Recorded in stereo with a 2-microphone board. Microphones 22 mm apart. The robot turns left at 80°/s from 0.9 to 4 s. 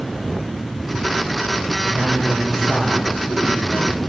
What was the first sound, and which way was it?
A man speaking, 130° right.